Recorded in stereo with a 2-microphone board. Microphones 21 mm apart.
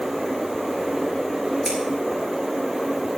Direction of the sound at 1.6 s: 20° left (ahead or behind).